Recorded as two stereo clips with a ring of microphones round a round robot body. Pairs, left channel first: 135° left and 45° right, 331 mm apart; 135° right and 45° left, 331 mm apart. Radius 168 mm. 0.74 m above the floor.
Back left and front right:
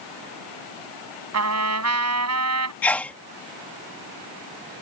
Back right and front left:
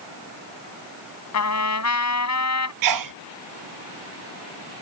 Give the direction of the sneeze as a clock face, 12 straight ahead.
10 o'clock.